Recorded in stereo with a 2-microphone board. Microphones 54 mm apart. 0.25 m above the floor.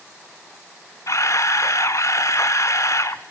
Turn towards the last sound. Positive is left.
turn(degrees=70)  # may be behind; listen again after turning